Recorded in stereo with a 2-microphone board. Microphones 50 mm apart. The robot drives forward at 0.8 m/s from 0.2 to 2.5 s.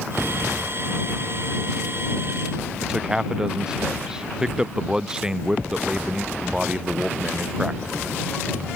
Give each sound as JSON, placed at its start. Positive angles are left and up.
{"t": 2.8, "sound": "a man speaking", "side_deg": -15}